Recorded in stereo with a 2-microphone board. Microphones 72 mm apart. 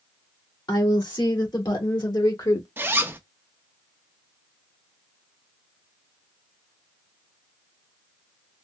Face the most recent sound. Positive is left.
turn(degrees=-30)  # may be behind; listen again after turning